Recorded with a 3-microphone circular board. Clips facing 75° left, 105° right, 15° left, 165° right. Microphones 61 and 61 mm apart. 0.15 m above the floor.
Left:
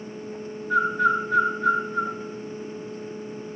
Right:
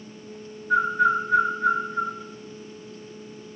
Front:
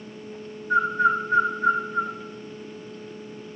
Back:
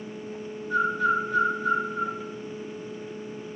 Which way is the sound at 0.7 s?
20° right.